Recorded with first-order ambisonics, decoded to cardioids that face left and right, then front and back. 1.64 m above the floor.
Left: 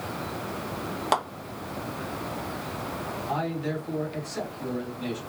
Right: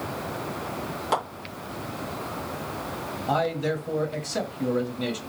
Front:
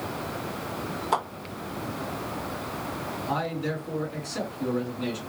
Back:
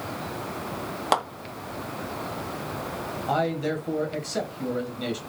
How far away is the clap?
About 1.5 m.